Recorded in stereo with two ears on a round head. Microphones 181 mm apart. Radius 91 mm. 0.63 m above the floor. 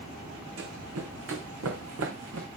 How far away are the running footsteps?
About 2.5 m.